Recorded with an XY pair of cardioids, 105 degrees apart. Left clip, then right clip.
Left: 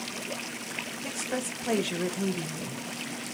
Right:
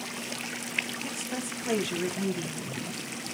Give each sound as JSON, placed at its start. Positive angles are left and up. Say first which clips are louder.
{"t": 1.0, "sound": "a woman speaking", "louder": "left 2 dB", "azimuth_deg": 20, "distance_m": 1.2}